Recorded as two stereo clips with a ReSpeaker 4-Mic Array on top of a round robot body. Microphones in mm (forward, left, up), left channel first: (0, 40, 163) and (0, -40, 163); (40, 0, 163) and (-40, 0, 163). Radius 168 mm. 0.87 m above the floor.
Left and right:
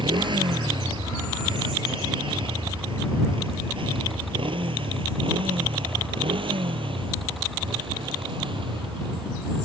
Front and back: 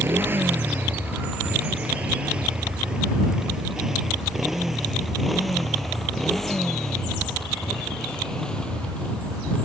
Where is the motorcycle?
115° right; by 9.7 s 80° right.